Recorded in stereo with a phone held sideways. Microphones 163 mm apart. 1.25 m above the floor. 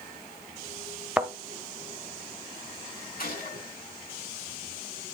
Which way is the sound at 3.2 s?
65° left (ahead or behind).